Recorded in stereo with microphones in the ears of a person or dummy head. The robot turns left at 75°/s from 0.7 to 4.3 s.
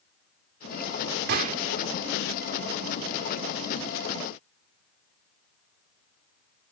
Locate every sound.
1.3 s a gunshot: 60° right (ahead or behind), 1.1 m; by 1.6 s 45° right (ahead or behind), 1.1 m